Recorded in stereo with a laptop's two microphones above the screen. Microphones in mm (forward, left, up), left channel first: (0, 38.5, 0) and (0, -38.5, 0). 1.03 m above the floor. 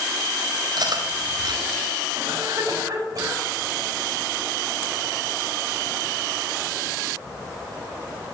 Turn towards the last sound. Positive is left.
turn(degrees=-45)  # may be behind; listen again after turning